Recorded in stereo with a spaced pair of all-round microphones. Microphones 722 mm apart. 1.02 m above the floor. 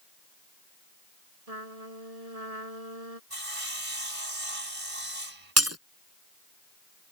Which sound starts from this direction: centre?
Breaking glass, at 5.6 s.